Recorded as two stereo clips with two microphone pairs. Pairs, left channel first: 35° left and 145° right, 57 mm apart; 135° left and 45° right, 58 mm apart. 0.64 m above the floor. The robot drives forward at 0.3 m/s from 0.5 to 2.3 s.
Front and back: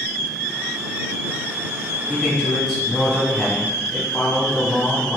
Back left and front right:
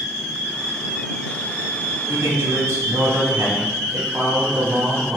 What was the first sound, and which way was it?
A man speaking, 60° right.